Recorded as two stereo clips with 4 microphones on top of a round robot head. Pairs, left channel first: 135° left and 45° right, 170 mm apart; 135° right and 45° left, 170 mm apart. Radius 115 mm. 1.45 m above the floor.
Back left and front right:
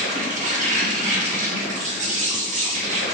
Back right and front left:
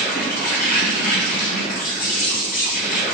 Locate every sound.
0.0 s an insect: 90° right, 0.8 m